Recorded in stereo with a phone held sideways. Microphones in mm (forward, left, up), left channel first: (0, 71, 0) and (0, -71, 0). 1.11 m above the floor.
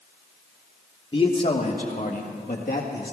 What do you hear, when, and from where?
1.1 s a man speaking: 35° left (ahead or behind), 1.3 m; by 3.1 s 75° left (ahead or behind), 2 m